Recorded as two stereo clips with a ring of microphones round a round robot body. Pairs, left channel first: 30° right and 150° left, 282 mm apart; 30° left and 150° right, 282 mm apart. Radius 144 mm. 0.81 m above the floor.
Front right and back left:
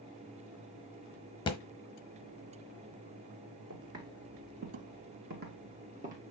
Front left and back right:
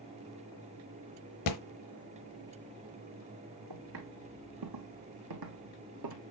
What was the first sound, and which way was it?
A thud, 45° left.